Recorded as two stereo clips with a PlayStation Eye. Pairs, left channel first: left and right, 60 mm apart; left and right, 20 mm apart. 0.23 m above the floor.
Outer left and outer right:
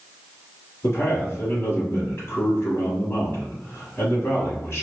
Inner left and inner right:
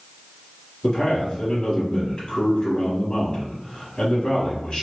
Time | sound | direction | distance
0.8 | a man speaking | 40° left (ahead or behind) | 1.2 m